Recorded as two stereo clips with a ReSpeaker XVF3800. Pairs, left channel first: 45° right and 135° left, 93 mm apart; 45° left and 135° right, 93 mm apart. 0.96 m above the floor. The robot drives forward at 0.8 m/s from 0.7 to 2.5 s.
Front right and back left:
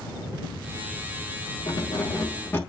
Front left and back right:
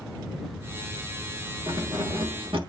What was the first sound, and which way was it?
Keys jangling, 85° right.